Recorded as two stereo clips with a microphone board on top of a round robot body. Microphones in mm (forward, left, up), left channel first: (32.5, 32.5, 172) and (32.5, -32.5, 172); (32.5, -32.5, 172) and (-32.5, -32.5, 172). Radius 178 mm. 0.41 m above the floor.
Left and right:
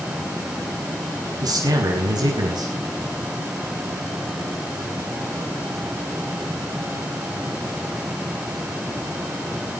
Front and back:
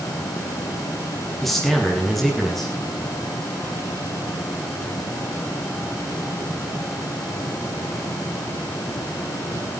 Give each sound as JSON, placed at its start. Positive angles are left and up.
{"t": 1.4, "sound": "a man speaking", "azimuth_deg": -90, "distance_m": 6.5}